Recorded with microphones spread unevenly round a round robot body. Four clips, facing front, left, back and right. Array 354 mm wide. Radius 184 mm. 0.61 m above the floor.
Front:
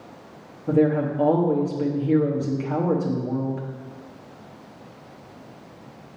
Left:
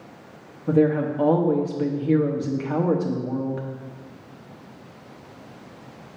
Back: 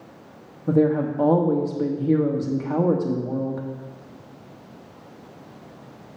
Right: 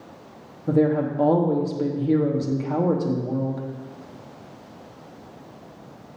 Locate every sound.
0.7 s a woman speaking: straight behind, 1.0 m